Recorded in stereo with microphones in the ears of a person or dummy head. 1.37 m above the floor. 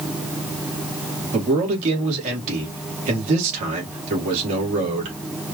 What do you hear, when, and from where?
1.3 s a man speaking: 45° right (ahead or behind), 1.9 m